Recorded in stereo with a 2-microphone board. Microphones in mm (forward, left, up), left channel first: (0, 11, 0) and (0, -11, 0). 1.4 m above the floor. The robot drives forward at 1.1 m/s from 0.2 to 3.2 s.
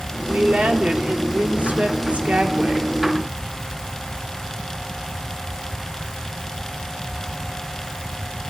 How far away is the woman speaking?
About 3 m.